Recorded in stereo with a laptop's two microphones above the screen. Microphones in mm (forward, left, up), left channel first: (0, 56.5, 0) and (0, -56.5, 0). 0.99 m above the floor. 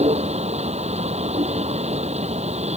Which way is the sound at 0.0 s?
75° right (ahead or behind).